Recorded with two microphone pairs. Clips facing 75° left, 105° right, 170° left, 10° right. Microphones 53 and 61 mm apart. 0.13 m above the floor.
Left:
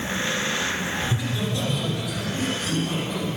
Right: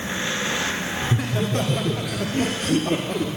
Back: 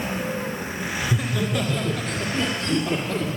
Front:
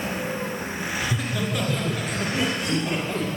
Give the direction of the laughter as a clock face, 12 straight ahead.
4 o'clock.